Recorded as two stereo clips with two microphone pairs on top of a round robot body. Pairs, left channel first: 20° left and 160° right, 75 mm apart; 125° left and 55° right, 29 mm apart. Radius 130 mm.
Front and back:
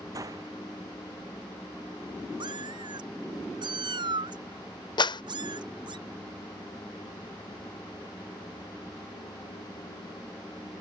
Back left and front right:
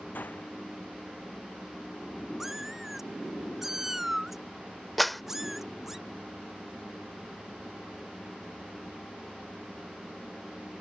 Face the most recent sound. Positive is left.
turn(degrees=35)